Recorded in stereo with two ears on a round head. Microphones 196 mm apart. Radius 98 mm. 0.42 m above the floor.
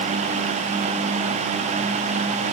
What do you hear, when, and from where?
Only background noise.